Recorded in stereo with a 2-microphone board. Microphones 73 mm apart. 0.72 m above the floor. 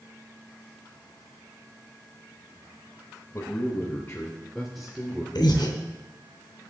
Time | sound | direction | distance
3.3 | a man speaking | 40° left (ahead or behind) | 3 m
5.3 | breathing | 75° left (ahead or behind) | 3 m